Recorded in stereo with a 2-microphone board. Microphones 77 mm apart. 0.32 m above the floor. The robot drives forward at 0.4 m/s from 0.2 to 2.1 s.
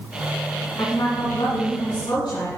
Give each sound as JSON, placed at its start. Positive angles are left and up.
{"t": 0.8, "sound": "a woman speaking", "side_deg": 70, "distance_m": 2.5}